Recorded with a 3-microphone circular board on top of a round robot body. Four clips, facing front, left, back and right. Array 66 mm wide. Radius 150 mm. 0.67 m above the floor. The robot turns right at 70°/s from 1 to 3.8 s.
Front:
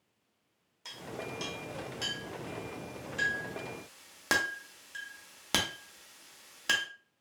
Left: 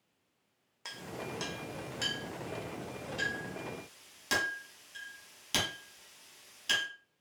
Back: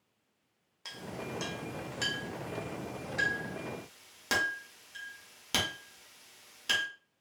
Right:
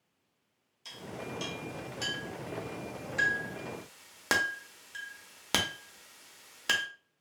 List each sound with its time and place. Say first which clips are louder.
0.8 s a clink: even, even; 100° left, 0.8 m; by 6.8 s 65° right, 0.8 m